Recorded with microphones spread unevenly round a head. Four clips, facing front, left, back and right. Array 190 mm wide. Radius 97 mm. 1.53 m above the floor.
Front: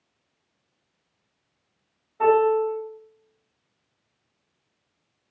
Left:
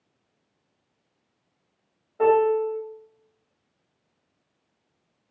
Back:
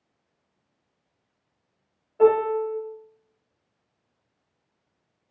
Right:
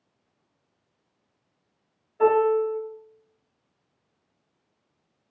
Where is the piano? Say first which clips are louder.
Even, front 1 dB; 150° left, 1.8 m.